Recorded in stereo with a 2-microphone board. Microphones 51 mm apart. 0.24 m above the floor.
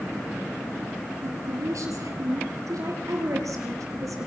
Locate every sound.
1.2 s a woman speaking: 75° right (ahead or behind), 4.5 m; by 4.3 s 80° right, 6.5 m